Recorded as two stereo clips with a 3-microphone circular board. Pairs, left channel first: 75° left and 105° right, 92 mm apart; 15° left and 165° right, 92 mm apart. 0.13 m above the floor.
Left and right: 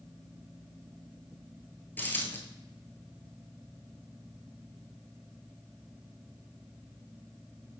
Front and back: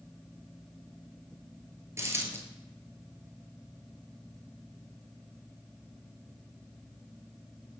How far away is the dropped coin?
About 1.0 m.